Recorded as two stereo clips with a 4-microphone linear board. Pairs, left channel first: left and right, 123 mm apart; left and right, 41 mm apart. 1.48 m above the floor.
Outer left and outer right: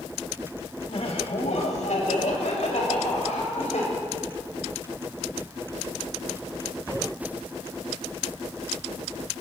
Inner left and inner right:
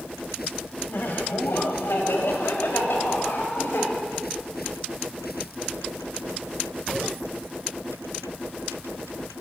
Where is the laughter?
55° left (ahead or behind), 1.4 m; by 3.9 s 85° left, 4 m.